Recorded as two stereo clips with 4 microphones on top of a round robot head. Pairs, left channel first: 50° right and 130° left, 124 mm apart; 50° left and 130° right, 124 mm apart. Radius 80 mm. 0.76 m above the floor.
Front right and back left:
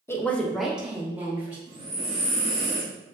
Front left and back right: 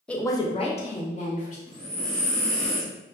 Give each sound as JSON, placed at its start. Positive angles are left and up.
{"t": 0.1, "sound": "a woman speaking", "azimuth_deg": -25, "distance_m": 0.5}
{"t": 1.7, "sound": "breathing", "azimuth_deg": 130, "distance_m": 1.3}